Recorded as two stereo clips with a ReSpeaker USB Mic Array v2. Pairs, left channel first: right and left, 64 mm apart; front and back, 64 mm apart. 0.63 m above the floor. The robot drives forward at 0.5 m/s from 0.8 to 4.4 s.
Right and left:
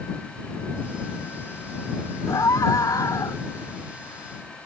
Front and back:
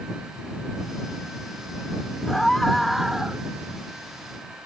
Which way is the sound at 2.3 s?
80° right.